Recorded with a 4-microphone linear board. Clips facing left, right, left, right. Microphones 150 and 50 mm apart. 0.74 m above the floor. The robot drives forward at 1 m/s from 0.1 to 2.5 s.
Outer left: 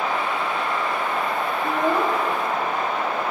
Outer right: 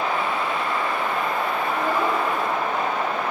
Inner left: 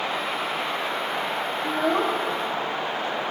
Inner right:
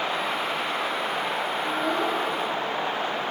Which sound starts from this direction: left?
A child speaking, at 1.6 s.